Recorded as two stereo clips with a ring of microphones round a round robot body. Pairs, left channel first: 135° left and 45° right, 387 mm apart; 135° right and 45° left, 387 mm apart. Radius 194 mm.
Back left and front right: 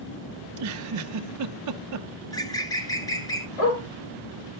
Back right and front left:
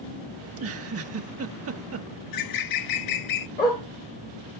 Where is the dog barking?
155° left, 5.5 m.